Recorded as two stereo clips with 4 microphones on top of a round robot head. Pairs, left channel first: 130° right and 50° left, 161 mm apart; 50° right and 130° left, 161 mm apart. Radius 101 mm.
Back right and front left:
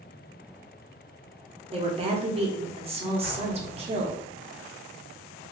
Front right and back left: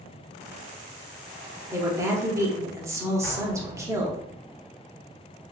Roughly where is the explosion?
Behind right.